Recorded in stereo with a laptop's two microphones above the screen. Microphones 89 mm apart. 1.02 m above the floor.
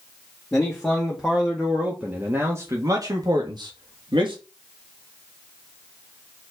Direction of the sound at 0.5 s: 5° left (ahead or behind).